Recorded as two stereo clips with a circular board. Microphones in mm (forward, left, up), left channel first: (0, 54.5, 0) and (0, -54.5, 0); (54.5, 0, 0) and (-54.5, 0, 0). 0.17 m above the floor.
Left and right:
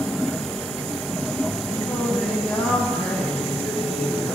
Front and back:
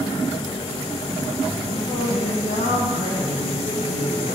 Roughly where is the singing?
Ahead.